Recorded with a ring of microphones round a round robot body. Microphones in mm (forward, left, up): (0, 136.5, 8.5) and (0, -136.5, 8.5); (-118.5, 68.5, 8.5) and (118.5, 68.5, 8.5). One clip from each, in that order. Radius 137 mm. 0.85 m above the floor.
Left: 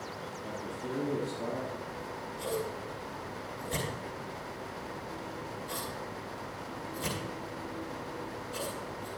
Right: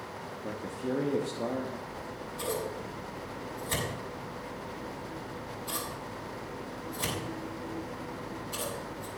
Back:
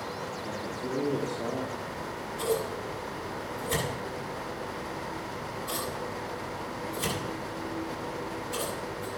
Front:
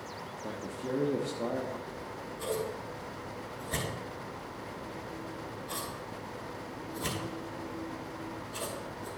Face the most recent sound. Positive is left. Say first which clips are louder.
# even, back 5 dB
turn(degrees=-145)